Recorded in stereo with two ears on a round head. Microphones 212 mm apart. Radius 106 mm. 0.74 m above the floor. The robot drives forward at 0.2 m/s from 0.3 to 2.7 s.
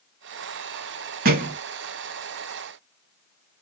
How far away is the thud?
About 0.8 m.